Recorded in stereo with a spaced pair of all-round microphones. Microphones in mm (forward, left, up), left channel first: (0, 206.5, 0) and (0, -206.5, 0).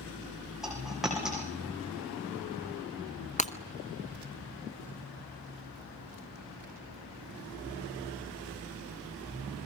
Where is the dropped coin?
Centre (ahead or behind), 7 m.